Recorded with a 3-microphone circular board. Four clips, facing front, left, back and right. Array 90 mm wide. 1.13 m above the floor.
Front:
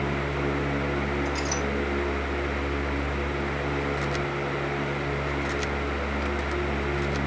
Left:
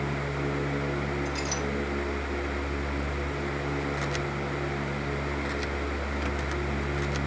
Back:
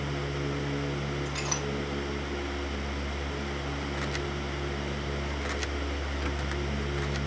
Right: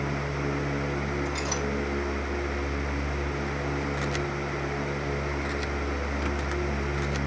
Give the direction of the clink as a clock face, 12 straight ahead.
5 o'clock.